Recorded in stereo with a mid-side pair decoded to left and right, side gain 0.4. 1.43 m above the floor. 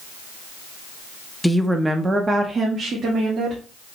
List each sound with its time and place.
1.4 s a woman speaking: 5° left, 0.6 m; by 3.6 s 65° right, 1.4 m